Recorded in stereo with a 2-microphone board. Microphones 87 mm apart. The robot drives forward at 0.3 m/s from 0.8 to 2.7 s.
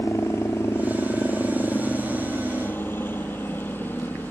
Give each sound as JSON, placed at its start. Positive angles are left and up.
{"t": 0.0, "sound": "a helicopter", "side_deg": 30}